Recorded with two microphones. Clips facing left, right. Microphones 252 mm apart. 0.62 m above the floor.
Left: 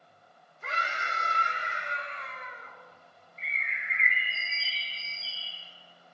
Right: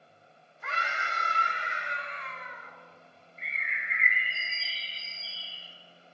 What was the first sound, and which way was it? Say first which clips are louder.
A scream: even; 35° left (ahead or behind).